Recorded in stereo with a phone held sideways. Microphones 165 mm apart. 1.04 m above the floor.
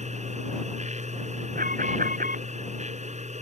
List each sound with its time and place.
0.0 s a machine running: 45° right (ahead or behind)
1.6 s an alarm: 55° right (ahead or behind)